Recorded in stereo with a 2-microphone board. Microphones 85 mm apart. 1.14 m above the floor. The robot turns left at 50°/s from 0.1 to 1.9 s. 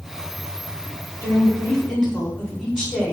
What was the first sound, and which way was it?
A woman speaking, 45° left.